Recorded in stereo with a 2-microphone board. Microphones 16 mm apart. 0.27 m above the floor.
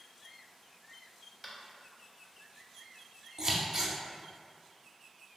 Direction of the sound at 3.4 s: 35° right (ahead or behind).